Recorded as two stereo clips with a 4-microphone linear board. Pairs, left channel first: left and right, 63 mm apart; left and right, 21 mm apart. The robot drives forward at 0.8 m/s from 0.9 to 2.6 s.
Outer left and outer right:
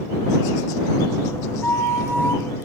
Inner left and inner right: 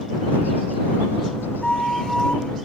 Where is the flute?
40° left (ahead or behind), 1.5 m; by 2.4 s 35° left (ahead or behind), 1.7 m.